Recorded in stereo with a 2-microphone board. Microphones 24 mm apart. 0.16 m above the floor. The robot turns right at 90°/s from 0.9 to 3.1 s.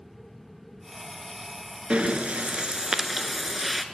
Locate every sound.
1.9 s breathing: 125° right, 0.5 m; by 3.9 s 15° right, 0.5 m